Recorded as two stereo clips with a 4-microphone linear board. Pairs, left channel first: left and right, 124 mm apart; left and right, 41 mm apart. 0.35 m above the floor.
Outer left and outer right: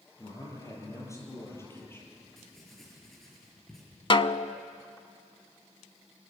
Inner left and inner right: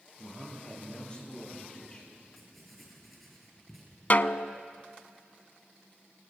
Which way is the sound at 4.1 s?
45° left (ahead or behind).